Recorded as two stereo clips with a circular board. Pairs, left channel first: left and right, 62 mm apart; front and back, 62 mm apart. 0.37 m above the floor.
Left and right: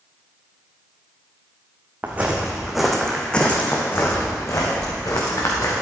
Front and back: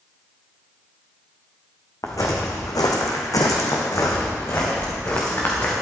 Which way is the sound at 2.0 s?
25° right.